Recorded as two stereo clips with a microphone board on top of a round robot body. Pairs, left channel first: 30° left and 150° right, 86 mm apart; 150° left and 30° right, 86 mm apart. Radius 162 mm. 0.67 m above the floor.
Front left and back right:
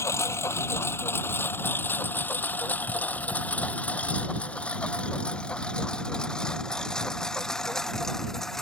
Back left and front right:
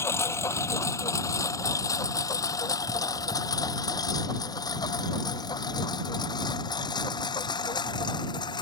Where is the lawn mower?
90° left; by 8.6 s 115° left.